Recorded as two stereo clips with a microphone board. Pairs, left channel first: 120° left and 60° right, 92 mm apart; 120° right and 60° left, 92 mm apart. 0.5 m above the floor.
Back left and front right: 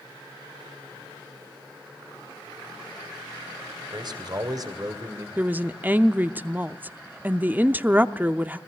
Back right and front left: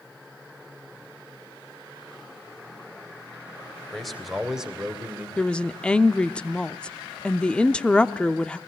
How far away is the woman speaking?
About 0.7 m.